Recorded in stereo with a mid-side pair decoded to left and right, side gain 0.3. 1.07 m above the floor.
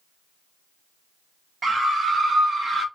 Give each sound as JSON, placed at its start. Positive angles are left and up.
{"t": 1.6, "sound": "a scream", "azimuth_deg": -65, "distance_m": 1.6}